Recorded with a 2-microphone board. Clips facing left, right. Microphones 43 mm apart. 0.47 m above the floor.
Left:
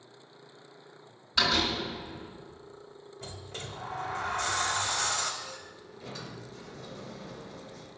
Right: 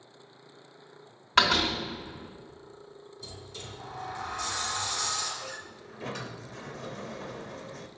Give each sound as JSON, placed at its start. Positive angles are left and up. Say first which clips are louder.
{"t": 1.4, "sound": "a door slam", "louder": "right 3 dB", "side_deg": -55, "distance_m": 2.5}
{"t": 3.2, "sound": "a sliding door", "louder": "left 3 dB", "side_deg": 50, "distance_m": 0.7}
{"t": 5.4, "sound": "a sliding door", "louder": "right 3 dB", "side_deg": -55, "distance_m": 0.5}